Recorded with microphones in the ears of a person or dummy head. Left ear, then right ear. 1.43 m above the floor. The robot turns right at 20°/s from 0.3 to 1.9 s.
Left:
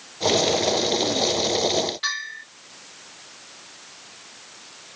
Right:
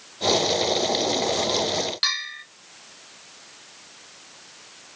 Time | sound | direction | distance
2.0 | a bell | 50° right (ahead or behind) | 1.5 m